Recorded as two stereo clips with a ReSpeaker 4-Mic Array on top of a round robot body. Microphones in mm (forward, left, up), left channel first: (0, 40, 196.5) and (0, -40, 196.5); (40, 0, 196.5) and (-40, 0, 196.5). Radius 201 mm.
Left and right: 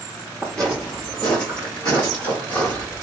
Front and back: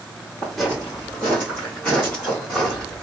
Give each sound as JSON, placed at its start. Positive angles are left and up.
{"t": 0.4, "sound": "footsteps", "azimuth_deg": 15, "distance_m": 1.1}